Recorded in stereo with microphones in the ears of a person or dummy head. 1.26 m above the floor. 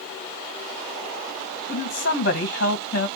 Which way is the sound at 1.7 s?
50° left (ahead or behind).